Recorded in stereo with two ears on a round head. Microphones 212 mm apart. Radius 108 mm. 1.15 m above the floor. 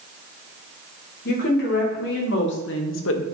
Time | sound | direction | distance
1.2 | a woman speaking | 45° left (ahead or behind) | 3 m